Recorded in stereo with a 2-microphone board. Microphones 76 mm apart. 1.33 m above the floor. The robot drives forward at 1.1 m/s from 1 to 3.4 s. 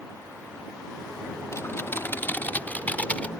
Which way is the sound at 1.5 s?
40° left (ahead or behind).